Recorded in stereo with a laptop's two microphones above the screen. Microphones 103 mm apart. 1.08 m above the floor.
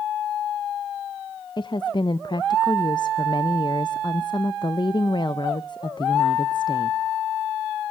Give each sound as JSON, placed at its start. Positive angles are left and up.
{"t": 1.6, "sound": "a woman speaking", "side_deg": 45, "distance_m": 0.6}